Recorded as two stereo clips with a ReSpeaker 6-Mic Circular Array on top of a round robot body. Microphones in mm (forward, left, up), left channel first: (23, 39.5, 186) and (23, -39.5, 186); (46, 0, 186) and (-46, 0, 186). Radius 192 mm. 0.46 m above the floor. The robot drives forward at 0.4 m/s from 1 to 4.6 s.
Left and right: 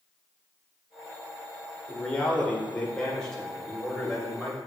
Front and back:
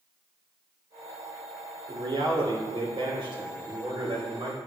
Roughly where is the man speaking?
Behind.